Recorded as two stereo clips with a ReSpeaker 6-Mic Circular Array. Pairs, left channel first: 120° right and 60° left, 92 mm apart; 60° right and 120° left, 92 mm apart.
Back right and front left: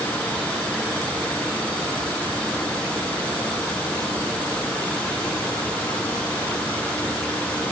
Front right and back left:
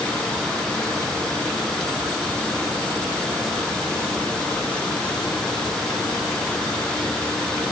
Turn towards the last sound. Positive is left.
No sound to turn to.